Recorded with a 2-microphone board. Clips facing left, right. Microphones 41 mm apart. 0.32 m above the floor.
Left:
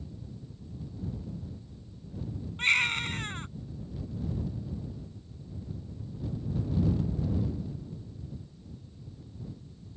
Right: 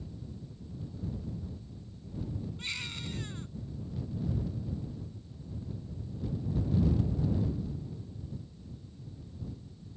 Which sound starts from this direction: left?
A baby crying, at 2.6 s.